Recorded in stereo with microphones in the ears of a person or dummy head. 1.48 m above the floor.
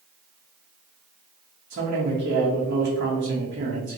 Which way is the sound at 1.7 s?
55° right (ahead or behind).